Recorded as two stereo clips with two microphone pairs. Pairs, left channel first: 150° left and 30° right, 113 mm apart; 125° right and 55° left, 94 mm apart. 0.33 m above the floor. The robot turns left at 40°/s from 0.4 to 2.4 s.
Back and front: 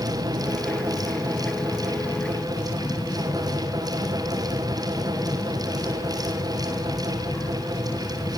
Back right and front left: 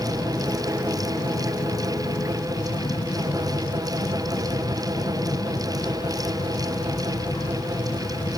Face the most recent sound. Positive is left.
turn(degrees=-150)